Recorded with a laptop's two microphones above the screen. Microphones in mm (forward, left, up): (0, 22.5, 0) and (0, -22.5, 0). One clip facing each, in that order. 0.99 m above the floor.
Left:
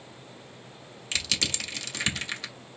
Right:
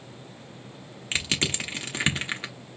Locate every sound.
1.1 s crushing: 30° right (ahead or behind), 0.9 m